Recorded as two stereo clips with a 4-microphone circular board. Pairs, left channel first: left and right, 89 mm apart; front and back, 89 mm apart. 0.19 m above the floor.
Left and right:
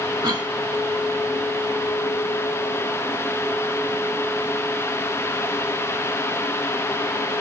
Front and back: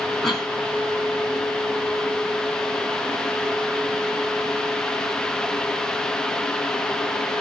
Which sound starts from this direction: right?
A cough, at 0.2 s.